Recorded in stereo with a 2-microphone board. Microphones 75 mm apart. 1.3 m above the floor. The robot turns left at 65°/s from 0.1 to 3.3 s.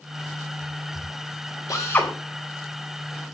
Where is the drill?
45° left (ahead or behind), 4.5 m; by 2.1 s 15° left (ahead or behind), 4.5 m.